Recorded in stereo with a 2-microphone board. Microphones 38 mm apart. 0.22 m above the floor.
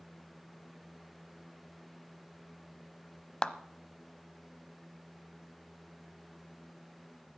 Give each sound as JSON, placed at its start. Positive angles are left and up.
{"t": 3.4, "sound": "a clap", "side_deg": 20, "distance_m": 0.8}